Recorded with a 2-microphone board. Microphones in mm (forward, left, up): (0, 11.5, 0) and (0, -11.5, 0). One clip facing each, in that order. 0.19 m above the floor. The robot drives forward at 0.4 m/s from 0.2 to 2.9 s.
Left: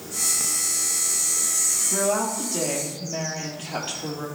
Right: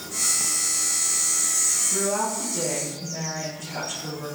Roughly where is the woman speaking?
Left.